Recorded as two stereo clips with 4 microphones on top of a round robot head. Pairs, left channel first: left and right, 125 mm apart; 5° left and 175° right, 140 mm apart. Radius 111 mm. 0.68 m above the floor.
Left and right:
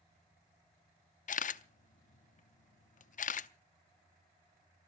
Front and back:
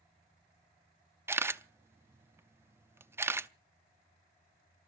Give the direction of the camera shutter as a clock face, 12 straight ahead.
8 o'clock.